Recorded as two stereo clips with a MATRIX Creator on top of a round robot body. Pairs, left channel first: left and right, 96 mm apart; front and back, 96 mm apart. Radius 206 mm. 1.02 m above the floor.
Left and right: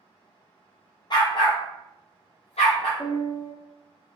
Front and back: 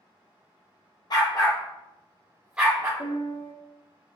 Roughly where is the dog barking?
Ahead left.